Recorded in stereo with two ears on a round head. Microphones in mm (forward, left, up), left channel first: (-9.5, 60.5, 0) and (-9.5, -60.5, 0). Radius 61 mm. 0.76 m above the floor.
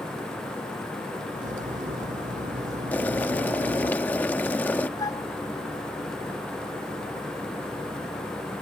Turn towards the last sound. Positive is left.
turn(degrees=30)  # may be behind; listen again after turning